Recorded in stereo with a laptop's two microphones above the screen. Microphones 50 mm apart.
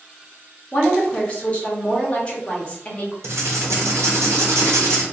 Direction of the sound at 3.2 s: 75° right (ahead or behind).